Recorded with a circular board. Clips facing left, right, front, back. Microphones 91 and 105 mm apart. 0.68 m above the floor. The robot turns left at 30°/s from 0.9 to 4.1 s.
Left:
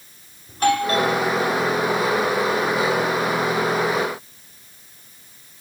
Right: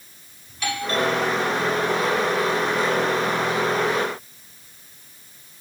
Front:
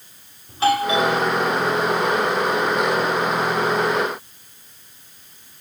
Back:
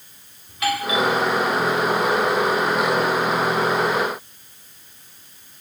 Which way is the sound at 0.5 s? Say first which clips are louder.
Left 7 dB, front 5 dB; 55° left.